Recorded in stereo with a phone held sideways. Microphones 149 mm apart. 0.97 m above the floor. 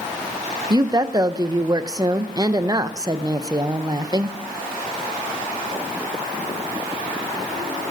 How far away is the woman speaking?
About 0.6 m.